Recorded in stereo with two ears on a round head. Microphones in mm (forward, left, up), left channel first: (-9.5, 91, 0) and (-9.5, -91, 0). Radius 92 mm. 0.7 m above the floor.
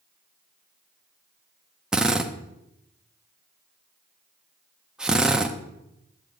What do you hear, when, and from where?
1.9 s a drill: 5° right (ahead or behind), 0.6 m